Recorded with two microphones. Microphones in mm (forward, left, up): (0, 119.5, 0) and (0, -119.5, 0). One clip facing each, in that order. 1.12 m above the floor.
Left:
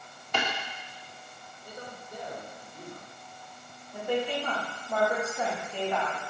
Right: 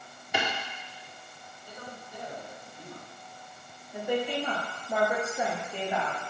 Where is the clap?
10° right (ahead or behind), 1.8 m.